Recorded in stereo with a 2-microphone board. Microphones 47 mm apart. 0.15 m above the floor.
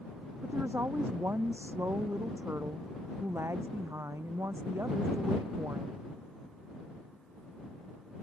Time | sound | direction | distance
0.4 | a woman speaking | 55° right (ahead or behind) | ?